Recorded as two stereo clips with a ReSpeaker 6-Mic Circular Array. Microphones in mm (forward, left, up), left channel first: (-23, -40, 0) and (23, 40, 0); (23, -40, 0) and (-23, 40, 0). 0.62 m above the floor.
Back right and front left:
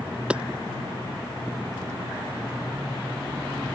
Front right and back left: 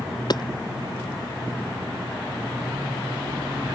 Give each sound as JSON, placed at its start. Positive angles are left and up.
{"t": 0.3, "sound": "hammering", "azimuth_deg": -20}